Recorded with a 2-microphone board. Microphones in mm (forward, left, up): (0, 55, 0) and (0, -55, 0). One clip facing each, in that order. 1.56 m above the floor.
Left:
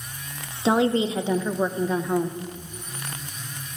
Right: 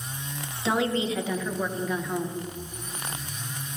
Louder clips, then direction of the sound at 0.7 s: Left 5 dB; 30° left (ahead or behind).